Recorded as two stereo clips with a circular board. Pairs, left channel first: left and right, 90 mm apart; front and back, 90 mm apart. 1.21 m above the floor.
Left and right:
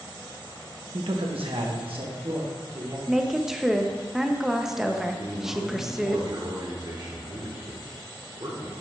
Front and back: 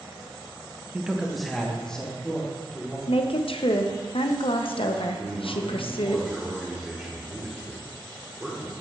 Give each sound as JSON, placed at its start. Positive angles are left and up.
{"t": 0.9, "sound": "a man speaking", "azimuth_deg": -105, "distance_m": 0.7}
{"t": 3.1, "sound": "a woman speaking", "azimuth_deg": -5, "distance_m": 0.6}
{"t": 5.2, "sound": "a man speaking", "azimuth_deg": -105, "distance_m": 1.2}